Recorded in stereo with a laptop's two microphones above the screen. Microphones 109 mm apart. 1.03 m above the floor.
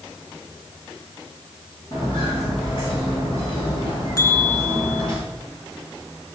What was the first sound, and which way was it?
Footsteps, 50° left (ahead or behind).